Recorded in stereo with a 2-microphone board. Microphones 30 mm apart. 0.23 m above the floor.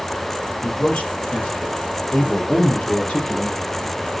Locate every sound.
0.6 s a man speaking: 60° left (ahead or behind), 6.5 m; by 3.6 s 35° left (ahead or behind), 7 m